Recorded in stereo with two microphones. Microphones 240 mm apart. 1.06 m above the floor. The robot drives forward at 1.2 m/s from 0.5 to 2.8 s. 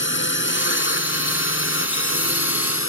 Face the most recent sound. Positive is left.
turn(degrees=60)  # may be behind; listen again after turning